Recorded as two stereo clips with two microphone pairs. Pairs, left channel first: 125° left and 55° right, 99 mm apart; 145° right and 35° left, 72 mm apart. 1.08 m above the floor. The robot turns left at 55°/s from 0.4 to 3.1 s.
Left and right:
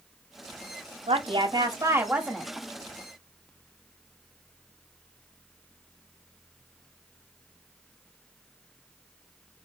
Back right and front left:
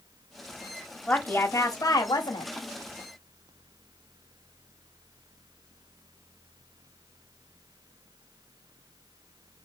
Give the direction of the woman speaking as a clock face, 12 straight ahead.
2 o'clock.